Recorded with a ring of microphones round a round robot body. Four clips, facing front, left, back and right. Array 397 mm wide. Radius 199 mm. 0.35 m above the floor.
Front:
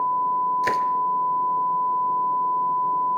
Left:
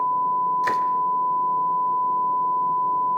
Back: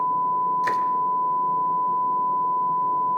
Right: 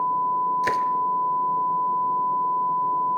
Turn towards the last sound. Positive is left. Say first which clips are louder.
# left 1 dB, even
turn(degrees=-45)